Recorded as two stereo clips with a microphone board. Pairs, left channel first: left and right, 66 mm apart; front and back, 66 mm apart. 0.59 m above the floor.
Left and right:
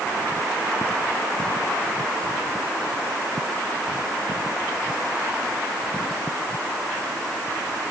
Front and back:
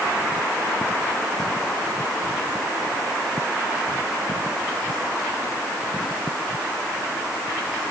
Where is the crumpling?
I don't hear crumpling.